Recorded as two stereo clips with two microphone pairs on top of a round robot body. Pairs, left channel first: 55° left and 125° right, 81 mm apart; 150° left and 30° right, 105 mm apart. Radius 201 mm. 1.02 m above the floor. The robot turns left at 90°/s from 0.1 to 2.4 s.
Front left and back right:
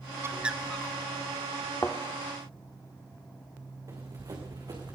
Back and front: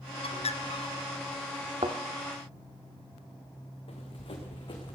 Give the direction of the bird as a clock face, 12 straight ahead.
6 o'clock.